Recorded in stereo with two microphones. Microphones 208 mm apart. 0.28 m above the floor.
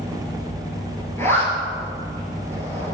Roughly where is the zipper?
Centre.